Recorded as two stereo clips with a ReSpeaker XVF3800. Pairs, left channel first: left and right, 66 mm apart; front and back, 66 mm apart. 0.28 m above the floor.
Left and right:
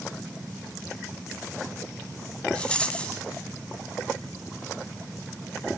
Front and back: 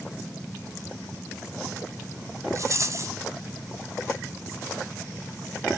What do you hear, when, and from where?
2.5 s a rattle: 160° left, 2.5 m